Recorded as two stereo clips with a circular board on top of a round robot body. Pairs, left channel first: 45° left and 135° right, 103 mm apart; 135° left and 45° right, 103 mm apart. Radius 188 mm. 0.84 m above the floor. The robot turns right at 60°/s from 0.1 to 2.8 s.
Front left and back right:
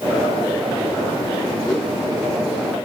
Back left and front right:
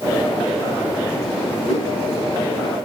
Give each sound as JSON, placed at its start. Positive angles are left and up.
{"t": 1.7, "sound": "a whoosh", "azimuth_deg": 135, "distance_m": 3.0}